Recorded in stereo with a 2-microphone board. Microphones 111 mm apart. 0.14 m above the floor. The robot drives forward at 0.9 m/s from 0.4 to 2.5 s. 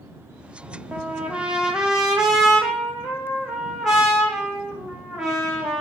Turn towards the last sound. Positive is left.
turn(degrees=-5)  # may be behind; listen again after turning